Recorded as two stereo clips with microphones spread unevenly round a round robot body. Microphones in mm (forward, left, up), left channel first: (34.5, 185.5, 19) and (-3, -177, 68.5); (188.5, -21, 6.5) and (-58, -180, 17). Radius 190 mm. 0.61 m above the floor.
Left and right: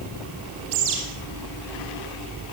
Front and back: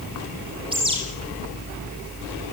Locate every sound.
0.7 s a bird: 75° right, 9 m